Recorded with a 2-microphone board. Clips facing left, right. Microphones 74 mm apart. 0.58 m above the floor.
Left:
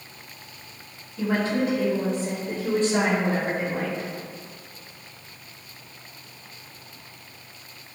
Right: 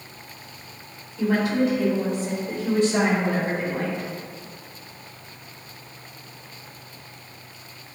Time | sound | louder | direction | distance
1.2 | a woman speaking | right 2 dB | 30° left (ahead or behind) | 1.4 m